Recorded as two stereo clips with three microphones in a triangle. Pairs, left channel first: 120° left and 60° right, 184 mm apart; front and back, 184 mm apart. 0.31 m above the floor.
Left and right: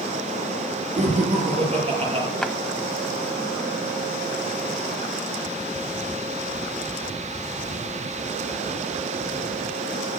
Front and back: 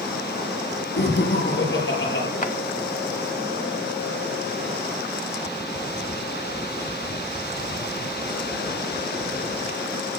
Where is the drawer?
35° left, 0.9 m.